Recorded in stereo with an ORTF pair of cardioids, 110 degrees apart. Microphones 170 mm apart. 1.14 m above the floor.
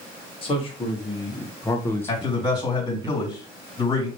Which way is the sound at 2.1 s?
25° left.